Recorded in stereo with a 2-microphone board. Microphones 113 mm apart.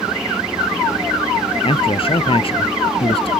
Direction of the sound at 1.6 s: 55° left (ahead or behind).